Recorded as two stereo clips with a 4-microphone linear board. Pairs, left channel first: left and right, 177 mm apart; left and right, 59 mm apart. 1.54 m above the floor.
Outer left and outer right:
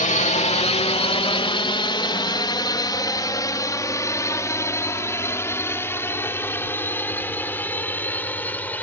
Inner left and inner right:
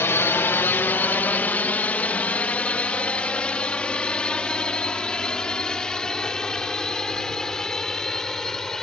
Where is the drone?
45° left (ahead or behind); by 8.8 s 10° left (ahead or behind).